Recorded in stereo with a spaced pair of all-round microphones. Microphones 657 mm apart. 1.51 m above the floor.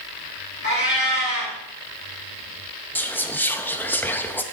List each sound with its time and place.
0.6 s a cat meowing: 15° left (ahead or behind), 3.5 m
3.0 s whispering: 5° left (ahead or behind), 0.5 m